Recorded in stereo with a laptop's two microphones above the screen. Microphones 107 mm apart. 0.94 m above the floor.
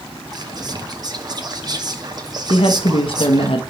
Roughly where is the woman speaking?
Left.